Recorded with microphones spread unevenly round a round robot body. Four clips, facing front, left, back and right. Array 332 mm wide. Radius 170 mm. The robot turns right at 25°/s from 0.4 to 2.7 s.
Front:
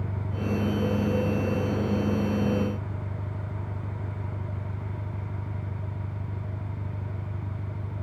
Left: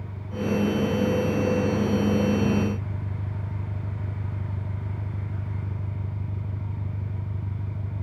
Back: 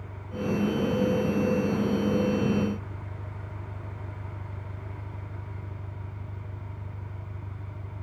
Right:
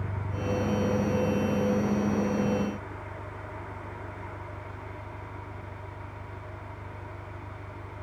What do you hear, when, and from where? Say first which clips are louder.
0.0 s an engine running: left 3 dB, front 1 dB; 5° right; by 8.0 s 55° left